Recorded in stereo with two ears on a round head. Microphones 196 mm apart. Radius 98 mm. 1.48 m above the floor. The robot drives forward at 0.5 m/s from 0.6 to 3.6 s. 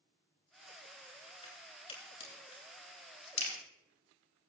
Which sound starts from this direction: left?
A crack, at 1.4 s.